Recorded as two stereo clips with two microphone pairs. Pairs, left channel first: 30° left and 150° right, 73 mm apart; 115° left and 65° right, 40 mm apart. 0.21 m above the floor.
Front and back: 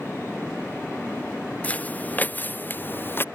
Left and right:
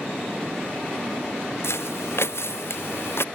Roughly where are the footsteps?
Left.